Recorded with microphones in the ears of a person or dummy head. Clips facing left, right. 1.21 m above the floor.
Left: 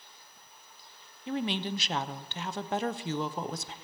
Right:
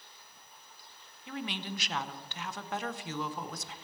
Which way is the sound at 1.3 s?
25° left (ahead or behind).